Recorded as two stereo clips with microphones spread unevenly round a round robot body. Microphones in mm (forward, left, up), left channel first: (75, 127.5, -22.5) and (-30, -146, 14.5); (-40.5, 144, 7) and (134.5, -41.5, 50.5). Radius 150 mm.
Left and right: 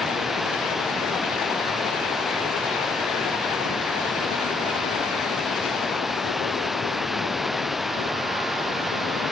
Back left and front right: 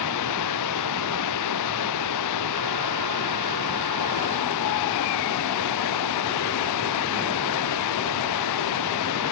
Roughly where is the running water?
Behind.